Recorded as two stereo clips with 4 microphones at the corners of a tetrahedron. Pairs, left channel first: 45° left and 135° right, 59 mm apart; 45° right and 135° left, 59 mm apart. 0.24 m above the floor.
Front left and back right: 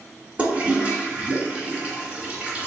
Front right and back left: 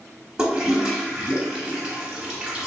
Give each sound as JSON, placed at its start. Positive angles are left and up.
{"t": 0.4, "sound": "a toilet flushing", "azimuth_deg": -165, "distance_m": 0.8}